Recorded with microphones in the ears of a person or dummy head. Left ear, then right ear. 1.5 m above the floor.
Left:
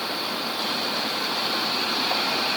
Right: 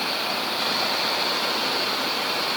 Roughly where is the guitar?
I don't hear a guitar.